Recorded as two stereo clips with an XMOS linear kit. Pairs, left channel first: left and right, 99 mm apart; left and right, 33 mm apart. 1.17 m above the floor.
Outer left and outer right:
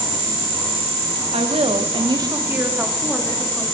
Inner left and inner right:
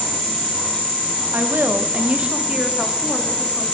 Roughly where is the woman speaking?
Right.